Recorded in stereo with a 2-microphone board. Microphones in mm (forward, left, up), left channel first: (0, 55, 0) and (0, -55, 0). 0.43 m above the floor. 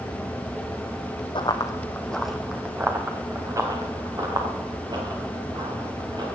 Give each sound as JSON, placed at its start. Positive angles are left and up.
{"t": 1.4, "sound": "running footsteps", "side_deg": 50, "distance_m": 1.4}